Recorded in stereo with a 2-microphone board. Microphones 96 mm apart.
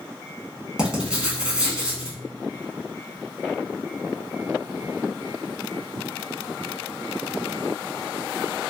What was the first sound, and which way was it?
Writing, 10° right (ahead or behind).